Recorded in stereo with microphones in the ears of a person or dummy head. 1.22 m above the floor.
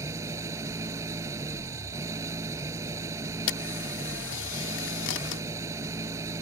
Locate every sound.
0.0 s an engine running: 20° right (ahead or behind)
3.5 s a camera shutter: 70° left (ahead or behind)